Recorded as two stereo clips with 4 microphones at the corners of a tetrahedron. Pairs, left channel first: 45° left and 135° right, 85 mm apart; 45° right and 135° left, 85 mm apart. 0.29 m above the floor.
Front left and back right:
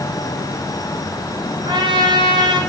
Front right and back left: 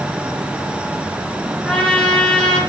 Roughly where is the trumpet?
Behind right.